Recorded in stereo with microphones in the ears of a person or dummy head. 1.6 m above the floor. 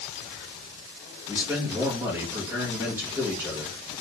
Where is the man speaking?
15° right (ahead or behind), 1.5 m.